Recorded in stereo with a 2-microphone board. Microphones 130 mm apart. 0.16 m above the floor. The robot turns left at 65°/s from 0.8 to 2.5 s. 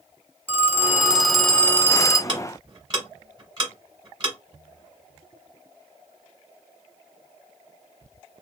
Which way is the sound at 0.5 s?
145° right.